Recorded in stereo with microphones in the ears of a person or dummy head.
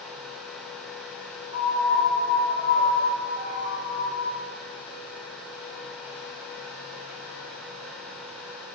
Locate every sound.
1.5 s a piano: 25° right (ahead or behind), 5 m